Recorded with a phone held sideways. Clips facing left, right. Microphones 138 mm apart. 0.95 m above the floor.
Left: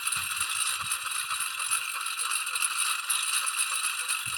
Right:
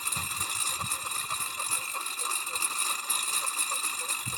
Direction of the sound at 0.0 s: 40° right (ahead or behind).